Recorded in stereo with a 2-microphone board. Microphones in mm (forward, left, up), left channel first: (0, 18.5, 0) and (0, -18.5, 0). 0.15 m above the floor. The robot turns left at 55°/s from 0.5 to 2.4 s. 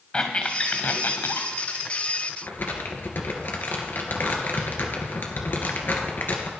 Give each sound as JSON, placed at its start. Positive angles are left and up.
{"t": 0.1, "sound": "a squeak", "side_deg": 25, "distance_m": 2.0}
{"t": 2.4, "sound": "crumpling", "side_deg": 60, "distance_m": 2.5}